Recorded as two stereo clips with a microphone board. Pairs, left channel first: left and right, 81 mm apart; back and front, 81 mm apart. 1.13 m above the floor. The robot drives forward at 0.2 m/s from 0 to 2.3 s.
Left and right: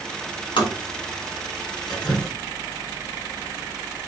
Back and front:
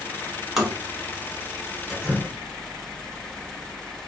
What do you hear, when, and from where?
0.6 s tapping: 85° left, 0.8 m; by 0.8 s 90° left, 0.8 m
1.9 s dripping: 95° left, 1.7 m